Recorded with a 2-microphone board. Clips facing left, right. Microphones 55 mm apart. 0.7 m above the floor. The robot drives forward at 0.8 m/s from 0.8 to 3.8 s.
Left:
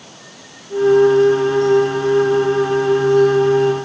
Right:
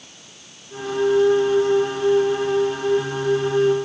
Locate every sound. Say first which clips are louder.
0.0 s running water: left 7 dB; 80° left; by 3.9 s 85° left